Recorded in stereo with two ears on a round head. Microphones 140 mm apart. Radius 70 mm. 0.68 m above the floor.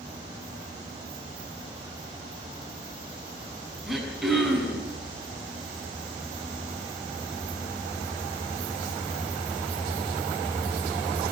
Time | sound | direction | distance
3.9 | throat clearing | centre (ahead or behind) | 6 m